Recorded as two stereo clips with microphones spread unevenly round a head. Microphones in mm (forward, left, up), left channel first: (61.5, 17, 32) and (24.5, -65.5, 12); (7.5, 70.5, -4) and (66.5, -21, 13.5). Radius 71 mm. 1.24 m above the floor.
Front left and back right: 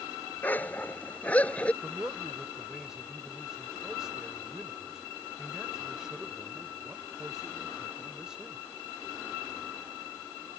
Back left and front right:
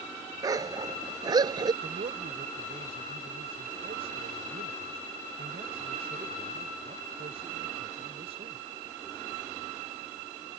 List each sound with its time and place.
0.4 s a dog barking: straight ahead; by 1.7 s 5° right
1.8 s a man speaking: 30° right